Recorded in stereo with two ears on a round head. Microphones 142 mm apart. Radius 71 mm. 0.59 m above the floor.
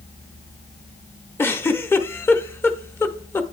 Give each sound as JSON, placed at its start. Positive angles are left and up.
{"t": 1.4, "sound": "a giggle", "side_deg": 15, "distance_m": 0.8}